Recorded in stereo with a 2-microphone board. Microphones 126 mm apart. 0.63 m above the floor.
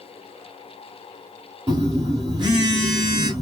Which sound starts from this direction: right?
A phone buzzing, at 1.7 s.